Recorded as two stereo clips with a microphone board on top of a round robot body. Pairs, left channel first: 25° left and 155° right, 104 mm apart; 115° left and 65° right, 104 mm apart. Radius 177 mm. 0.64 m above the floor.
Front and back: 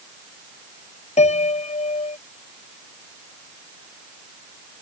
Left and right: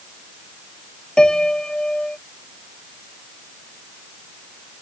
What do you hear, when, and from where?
1.2 s a piano: 30° left